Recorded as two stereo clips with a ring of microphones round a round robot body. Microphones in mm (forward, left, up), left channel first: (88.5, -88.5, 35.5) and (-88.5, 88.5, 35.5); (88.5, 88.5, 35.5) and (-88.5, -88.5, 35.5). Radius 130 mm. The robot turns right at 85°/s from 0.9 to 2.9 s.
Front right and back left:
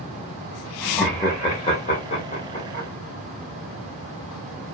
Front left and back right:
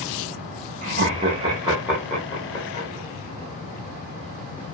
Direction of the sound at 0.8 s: 140° right.